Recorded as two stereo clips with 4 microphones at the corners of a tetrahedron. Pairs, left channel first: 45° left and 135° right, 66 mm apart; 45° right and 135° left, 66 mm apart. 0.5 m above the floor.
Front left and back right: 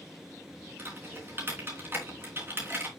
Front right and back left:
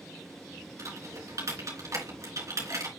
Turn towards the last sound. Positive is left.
turn(degrees=170)